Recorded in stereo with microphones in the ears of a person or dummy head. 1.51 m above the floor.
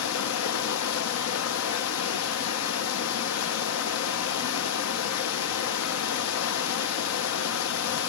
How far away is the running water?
About 1.3 m.